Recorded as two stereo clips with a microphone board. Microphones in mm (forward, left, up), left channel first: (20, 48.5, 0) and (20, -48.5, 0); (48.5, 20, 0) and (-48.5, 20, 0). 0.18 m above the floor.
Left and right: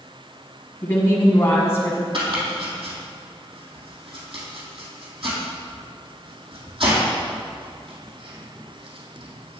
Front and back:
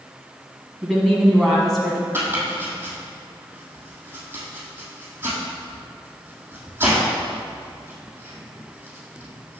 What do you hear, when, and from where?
0.8 s a woman speaking: 90° left, 1.4 m
2.1 s chopping: 115° right, 2.5 m